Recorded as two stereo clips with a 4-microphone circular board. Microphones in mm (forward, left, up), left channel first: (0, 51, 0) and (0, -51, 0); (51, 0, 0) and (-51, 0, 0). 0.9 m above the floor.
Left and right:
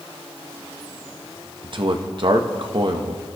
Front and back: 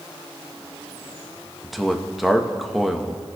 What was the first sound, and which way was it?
A man speaking, 90° right.